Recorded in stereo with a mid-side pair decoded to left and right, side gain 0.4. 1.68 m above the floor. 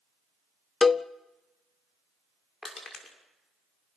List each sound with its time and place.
0.8 s a cowbell: 40° left, 0.7 m
2.6 s crushing: 40° left, 5.5 m